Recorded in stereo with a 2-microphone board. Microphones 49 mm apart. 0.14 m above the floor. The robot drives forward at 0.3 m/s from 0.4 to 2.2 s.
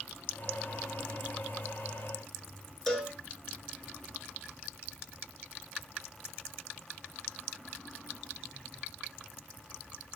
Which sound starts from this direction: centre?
A cowbell, at 2.9 s.